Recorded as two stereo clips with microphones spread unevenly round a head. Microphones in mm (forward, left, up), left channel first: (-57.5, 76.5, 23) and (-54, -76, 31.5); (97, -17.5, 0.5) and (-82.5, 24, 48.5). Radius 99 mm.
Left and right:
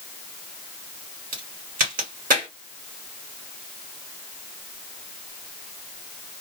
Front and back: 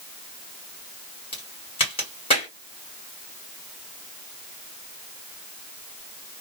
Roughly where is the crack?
Right.